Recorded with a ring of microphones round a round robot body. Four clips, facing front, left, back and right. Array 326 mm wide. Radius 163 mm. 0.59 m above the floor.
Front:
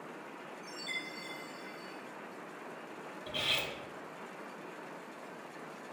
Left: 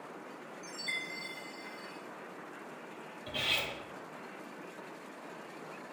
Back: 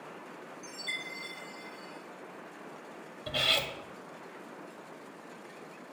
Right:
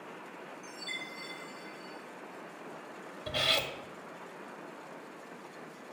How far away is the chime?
About 1.4 m.